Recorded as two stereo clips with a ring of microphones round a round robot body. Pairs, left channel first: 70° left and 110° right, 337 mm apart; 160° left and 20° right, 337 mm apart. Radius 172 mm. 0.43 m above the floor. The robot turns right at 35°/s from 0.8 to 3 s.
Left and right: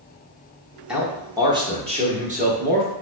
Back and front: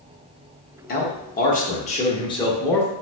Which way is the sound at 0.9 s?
165° left.